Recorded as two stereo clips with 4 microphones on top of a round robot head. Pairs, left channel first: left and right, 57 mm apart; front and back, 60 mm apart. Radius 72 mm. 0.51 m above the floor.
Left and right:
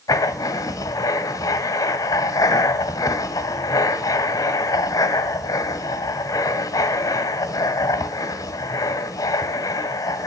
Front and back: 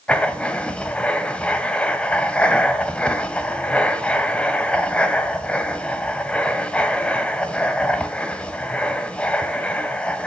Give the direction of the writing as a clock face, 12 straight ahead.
10 o'clock.